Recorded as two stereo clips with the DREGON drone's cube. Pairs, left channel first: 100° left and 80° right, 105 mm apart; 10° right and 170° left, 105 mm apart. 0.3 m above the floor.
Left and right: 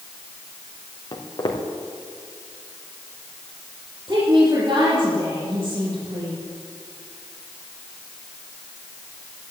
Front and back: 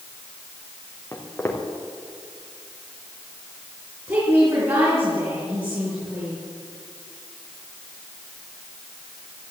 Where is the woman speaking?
130° right, 5.5 m.